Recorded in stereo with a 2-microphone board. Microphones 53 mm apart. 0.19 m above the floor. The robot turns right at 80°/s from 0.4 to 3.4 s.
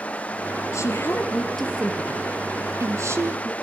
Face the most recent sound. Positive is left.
turn(degrees=-40)